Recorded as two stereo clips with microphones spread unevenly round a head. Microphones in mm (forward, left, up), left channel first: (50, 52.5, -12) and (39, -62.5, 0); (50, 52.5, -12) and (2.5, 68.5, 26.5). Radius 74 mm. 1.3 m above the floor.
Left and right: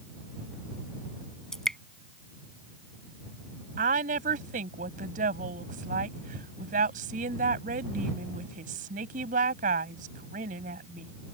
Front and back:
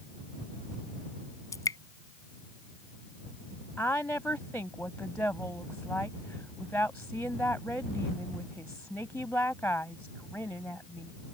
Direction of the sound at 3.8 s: 100° right.